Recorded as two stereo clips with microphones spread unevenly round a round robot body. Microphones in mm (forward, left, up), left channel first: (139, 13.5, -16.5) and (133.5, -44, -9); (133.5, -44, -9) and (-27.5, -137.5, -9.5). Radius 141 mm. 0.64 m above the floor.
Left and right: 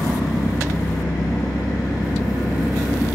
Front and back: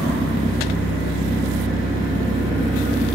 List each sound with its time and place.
0.0 s an engine running: 130° left, 3 m